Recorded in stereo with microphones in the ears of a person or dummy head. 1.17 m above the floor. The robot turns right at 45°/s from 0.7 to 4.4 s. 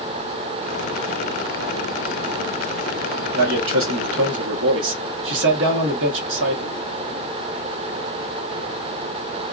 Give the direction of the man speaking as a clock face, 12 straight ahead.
4 o'clock.